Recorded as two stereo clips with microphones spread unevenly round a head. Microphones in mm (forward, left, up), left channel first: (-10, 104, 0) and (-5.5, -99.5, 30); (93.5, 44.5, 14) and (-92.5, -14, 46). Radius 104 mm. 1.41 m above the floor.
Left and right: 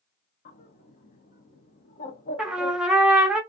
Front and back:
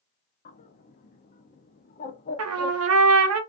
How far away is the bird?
About 0.6 m.